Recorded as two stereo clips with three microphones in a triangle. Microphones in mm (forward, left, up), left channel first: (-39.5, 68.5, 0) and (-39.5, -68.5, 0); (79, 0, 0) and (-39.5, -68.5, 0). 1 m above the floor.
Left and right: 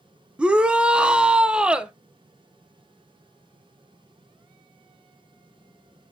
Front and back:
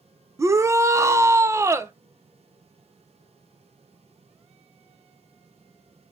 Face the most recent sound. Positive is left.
turn(degrees=-160)